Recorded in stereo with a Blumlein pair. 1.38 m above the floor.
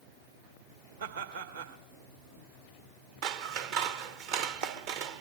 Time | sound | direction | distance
1.0 | laughter | 65° right | 2 m
3.2 | scissors | 45° right | 0.9 m